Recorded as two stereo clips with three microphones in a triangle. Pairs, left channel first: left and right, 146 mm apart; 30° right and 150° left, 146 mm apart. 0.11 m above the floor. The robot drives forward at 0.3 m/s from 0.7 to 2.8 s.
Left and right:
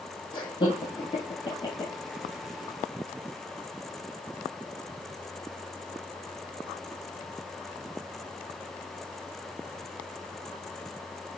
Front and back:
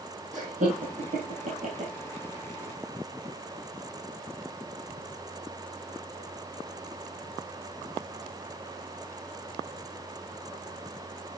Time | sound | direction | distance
0.3 | laughter | 140° left | 2 m